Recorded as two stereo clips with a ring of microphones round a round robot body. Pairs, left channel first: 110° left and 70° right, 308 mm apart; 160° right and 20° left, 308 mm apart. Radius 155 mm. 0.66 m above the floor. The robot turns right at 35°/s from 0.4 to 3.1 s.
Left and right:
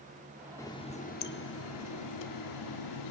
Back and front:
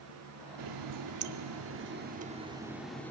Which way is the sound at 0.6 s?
30° left.